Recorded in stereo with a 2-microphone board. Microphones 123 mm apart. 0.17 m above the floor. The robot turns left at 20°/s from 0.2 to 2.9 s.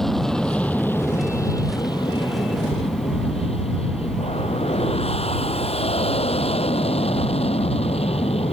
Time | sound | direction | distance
0.0 | an aircraft | straight behind | ?